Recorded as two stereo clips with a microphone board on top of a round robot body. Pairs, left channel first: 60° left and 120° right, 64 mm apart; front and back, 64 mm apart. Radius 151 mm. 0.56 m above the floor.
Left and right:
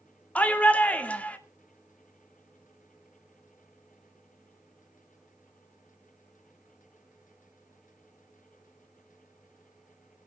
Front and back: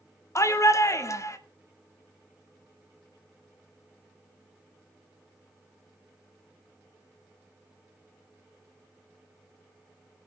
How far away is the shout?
About 1.9 m.